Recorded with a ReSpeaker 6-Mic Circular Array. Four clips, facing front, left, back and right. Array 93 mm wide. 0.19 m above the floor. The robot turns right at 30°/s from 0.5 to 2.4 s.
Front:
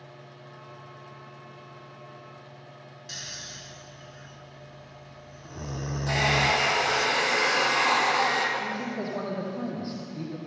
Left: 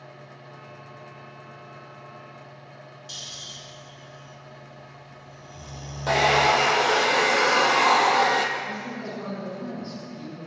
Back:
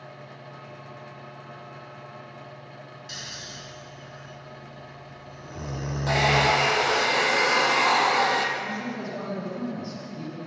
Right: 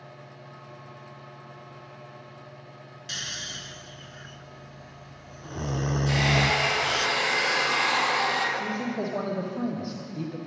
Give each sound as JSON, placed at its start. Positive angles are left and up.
{"t": 3.1, "sound": "snoring", "azimuth_deg": -95, "distance_m": 0.7}
{"t": 6.1, "sound": "a hair dryer", "azimuth_deg": 105, "distance_m": 3.0}
{"t": 8.6, "sound": "a man speaking", "azimuth_deg": -70, "distance_m": 7.0}